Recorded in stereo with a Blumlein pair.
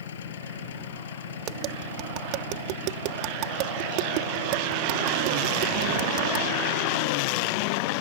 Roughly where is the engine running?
Ahead left.